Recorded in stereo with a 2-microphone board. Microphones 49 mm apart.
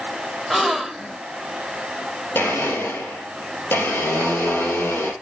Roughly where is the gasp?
Centre.